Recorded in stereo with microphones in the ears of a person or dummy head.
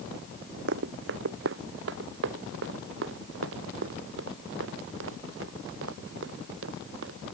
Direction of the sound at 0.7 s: 65° right (ahead or behind).